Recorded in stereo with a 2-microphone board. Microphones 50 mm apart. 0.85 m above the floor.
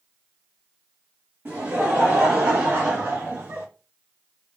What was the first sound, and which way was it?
Laughter, 50° right (ahead or behind).